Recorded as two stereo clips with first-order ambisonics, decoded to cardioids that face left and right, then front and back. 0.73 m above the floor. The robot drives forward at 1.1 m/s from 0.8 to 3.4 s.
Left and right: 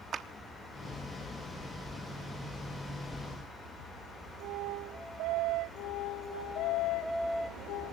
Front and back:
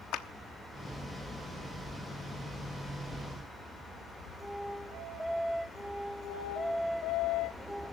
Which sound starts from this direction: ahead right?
A clap, at 0.1 s.